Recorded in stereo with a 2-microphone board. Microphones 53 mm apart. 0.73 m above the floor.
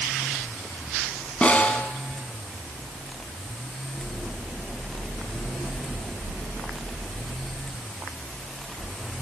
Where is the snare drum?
25° left (ahead or behind), 1.5 m.